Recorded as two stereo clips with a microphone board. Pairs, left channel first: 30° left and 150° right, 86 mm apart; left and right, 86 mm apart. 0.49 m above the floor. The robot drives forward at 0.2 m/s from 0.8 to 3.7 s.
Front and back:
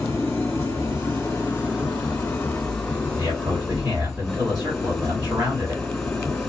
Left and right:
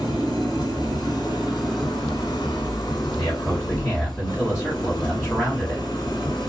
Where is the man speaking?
175° left, 1.8 m.